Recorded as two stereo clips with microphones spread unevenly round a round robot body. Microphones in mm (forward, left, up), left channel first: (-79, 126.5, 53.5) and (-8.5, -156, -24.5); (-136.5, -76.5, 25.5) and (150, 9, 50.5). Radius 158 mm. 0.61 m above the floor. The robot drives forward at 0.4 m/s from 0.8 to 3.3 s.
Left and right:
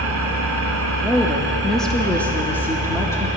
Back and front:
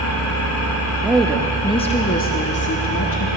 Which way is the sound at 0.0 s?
125° right.